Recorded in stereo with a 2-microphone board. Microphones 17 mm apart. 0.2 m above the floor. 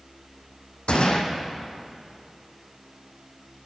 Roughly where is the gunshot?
Left.